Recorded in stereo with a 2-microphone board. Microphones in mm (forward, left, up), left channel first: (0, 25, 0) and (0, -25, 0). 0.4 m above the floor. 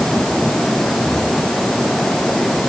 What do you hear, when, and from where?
Only background noise.